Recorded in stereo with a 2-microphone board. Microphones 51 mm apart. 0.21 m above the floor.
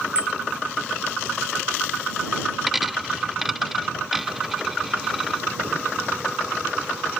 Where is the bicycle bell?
20° right (ahead or behind).